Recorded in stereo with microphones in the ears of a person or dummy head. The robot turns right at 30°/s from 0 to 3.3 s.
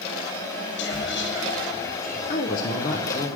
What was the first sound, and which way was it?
Whispering, 90° left.